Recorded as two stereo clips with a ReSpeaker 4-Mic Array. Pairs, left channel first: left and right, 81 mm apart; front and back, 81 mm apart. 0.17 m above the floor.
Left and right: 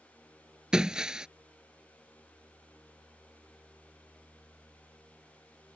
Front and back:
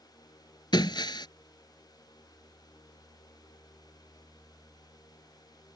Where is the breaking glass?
10° right.